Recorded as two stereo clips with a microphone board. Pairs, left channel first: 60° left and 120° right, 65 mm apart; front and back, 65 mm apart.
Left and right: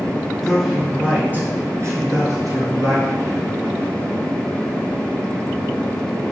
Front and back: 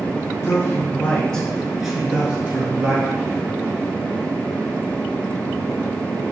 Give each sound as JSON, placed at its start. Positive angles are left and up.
{"t": 0.4, "sound": "a man speaking", "azimuth_deg": -25, "distance_m": 1.4}